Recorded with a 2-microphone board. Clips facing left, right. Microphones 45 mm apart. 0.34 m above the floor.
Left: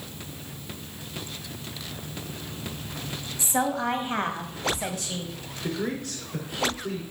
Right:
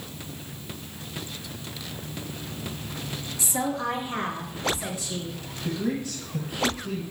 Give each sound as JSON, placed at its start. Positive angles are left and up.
{"t": 3.4, "sound": "a woman speaking", "side_deg": 35, "distance_m": 1.6}
{"t": 5.6, "sound": "a man speaking", "side_deg": 65, "distance_m": 4.0}